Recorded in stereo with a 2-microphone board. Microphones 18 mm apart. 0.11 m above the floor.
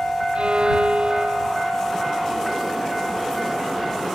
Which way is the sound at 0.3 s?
70° right (ahead or behind).